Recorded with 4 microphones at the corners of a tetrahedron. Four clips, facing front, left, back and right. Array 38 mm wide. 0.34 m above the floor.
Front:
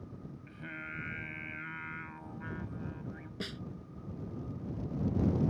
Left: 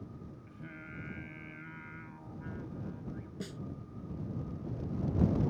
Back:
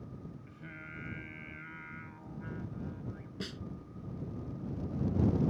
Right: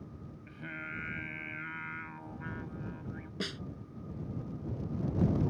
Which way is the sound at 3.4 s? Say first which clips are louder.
Right 8 dB, front 1 dB; 80° right.